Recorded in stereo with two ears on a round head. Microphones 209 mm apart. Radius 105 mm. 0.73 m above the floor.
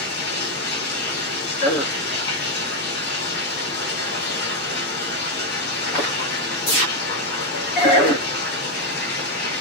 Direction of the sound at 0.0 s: 45° left (ahead or behind).